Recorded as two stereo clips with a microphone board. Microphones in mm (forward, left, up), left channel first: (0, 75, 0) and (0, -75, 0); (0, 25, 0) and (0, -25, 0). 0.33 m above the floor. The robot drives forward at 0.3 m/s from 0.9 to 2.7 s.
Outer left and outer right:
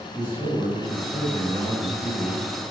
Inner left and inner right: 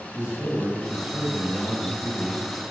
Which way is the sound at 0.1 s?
20° right (ahead or behind).